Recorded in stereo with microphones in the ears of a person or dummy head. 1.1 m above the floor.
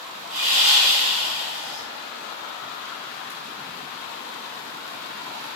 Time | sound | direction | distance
0.3 | sawing | 40° right (ahead or behind) | 0.6 m